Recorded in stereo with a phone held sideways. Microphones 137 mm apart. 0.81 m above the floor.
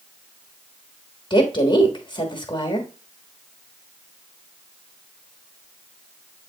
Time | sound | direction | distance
1.3 | a woman speaking | 35° left (ahead or behind) | 1.3 m